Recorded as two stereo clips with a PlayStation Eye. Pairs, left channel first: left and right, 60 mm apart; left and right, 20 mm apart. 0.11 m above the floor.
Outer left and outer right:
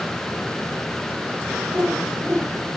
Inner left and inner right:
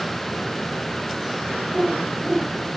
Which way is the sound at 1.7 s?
35° right (ahead or behind).